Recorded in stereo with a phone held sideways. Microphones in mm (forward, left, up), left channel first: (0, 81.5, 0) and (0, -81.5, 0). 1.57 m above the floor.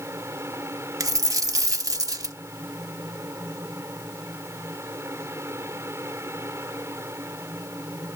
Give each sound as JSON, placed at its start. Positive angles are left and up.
{"t": 0.0, "sound": "a fan", "side_deg": -15}
{"t": 1.0, "sound": "a dropped coin", "side_deg": -20}